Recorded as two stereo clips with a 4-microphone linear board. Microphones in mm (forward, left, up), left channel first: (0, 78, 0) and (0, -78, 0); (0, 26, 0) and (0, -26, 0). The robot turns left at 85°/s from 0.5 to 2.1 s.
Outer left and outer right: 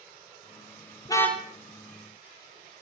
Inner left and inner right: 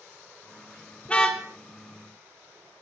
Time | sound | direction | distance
1.1 | a car horn | 30° left | 2.5 m